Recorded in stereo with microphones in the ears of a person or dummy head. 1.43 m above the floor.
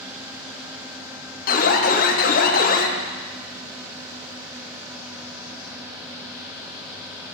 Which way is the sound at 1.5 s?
40° left (ahead or behind).